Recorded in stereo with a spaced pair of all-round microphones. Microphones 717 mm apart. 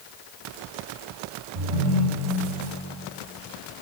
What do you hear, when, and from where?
1.6 s a ringtone: 65° right (ahead or behind), 6.5 m